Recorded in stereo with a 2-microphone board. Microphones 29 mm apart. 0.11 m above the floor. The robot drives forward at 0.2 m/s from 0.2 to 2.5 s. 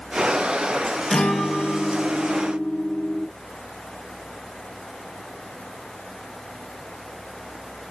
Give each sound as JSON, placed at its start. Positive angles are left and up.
{"t": 1.1, "sound": "a guitar", "side_deg": 20, "distance_m": 1.5}